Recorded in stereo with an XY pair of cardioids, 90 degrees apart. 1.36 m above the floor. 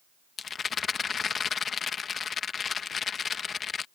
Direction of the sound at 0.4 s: 50° left.